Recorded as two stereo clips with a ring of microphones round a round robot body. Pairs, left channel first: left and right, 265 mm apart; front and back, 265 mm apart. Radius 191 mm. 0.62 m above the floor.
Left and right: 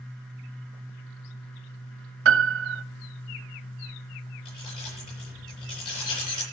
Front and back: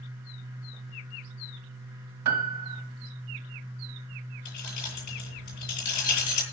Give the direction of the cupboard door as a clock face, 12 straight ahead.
I don't hear a cupboard door.